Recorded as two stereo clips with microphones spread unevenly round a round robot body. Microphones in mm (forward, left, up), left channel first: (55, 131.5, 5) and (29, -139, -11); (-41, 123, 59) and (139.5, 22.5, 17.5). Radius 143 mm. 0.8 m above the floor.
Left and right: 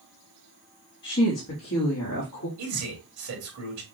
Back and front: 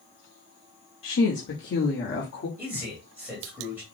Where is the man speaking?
100° right, 1.8 m.